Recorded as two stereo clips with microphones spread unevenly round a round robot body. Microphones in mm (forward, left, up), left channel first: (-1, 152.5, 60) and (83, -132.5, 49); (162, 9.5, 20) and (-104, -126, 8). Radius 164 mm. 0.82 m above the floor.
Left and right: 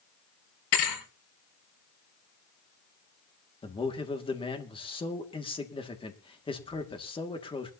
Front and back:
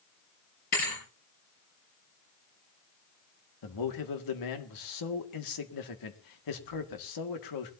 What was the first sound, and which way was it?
A thud, 90° left.